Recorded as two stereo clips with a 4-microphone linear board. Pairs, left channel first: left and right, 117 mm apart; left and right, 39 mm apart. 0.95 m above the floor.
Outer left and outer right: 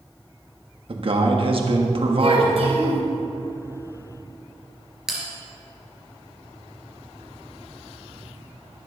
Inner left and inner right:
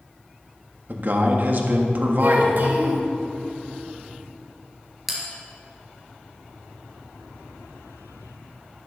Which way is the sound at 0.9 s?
50° right (ahead or behind).